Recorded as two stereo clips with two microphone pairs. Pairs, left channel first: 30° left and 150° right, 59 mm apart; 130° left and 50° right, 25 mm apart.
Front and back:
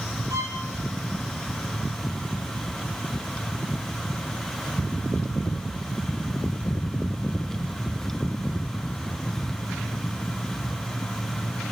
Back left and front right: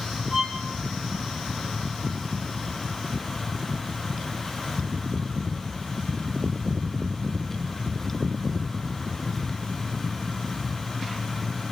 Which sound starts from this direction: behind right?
A violin, at 0.3 s.